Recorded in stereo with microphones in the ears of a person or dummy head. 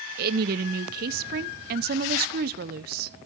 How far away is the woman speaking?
About 0.6 m.